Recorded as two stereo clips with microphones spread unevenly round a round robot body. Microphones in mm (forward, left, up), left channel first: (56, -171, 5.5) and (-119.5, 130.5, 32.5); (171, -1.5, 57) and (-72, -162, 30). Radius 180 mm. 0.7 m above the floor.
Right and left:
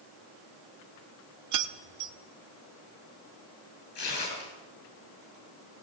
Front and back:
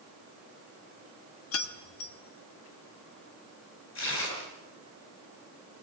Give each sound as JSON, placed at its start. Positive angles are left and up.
{"t": 1.5, "sound": "keys jangling", "azimuth_deg": 80, "distance_m": 1.0}
{"t": 4.0, "sound": "tearing paper", "azimuth_deg": 5, "distance_m": 9.5}